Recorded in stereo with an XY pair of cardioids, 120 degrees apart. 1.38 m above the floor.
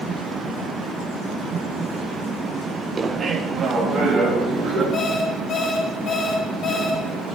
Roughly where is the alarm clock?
Ahead left.